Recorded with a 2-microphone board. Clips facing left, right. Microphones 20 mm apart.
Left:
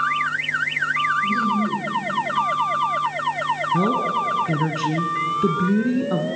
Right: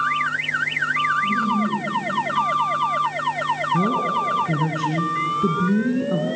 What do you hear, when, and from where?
1.2 s laughter: 30° left (ahead or behind), 7 m
3.7 s a woman speaking: 30° left (ahead or behind), 1.3 m